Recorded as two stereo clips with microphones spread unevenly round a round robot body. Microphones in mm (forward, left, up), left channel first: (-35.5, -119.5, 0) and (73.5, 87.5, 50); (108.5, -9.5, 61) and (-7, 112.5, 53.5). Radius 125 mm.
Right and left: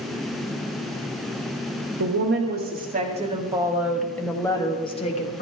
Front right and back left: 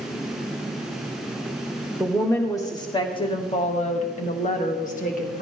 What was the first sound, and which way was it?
A woman speaking, 35° left.